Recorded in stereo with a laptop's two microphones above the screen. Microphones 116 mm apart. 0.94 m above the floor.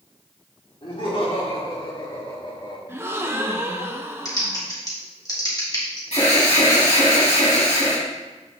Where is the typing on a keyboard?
30° left (ahead or behind), 1.6 m.